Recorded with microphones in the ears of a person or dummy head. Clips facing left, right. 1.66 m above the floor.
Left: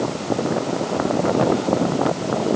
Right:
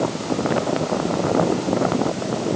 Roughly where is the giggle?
I don't hear a giggle.